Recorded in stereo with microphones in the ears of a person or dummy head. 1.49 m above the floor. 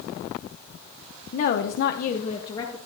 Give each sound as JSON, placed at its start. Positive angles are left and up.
{"t": 1.3, "sound": "a woman speaking", "side_deg": 45, "distance_m": 0.9}